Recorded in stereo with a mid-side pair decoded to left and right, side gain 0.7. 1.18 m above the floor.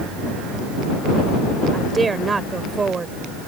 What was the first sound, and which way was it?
A woman speaking, 20° right.